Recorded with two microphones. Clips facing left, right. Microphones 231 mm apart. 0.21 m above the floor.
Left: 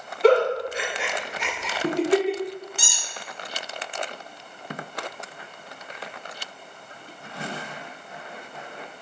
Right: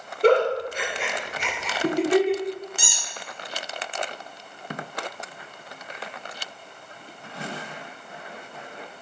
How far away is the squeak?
About 1.2 m.